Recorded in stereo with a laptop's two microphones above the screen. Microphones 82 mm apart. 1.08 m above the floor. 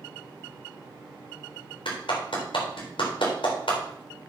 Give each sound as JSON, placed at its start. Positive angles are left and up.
{"t": 1.9, "sound": "a clap", "side_deg": 85, "distance_m": 4.0}